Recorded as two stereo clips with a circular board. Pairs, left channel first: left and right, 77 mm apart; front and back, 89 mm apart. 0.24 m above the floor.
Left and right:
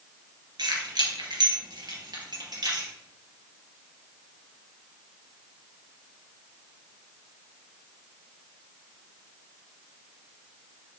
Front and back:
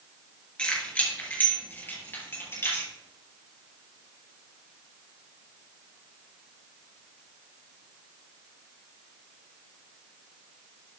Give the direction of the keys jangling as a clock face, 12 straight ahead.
3 o'clock.